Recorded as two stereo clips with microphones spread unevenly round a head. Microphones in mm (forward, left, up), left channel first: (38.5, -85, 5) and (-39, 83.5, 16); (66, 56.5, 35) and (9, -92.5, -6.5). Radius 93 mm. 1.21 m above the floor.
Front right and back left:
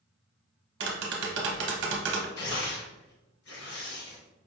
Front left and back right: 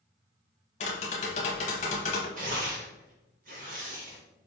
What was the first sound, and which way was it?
Tapping, 125° left.